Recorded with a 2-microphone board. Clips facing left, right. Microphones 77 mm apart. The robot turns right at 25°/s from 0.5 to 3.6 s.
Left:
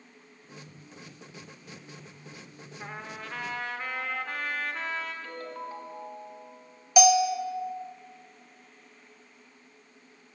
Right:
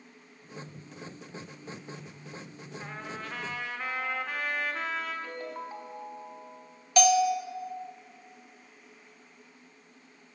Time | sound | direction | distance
2.8 | a trumpet | 5° left (ahead or behind) | 1.0 m
5.2 | a ringtone | 20° right (ahead or behind) | 1.5 m
7.0 | a bell | 10° left (ahead or behind) | 0.6 m